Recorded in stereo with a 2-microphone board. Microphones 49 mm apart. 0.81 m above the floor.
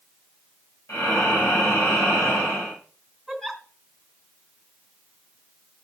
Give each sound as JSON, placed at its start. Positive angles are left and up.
{"t": 0.9, "sound": "breathing", "side_deg": 85, "distance_m": 4.0}
{"t": 3.3, "sound": "a giggle", "side_deg": 5, "distance_m": 3.5}